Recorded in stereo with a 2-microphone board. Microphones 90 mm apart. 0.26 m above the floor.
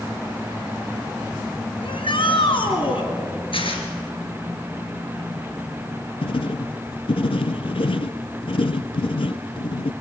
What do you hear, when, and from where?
1.8 s a shout: 70° left (ahead or behind), 3 m
3.5 s tearing paper: 75° left (ahead or behind), 3.5 m
6.2 s writing: 80° left, 0.8 m